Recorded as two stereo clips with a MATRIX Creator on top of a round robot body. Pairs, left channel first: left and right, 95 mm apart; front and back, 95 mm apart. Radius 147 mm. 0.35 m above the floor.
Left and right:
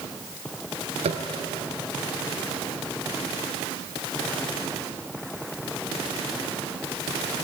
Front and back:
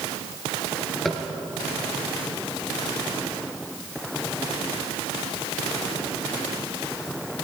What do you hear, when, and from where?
1.1 s tapping: 90° right, 1.9 m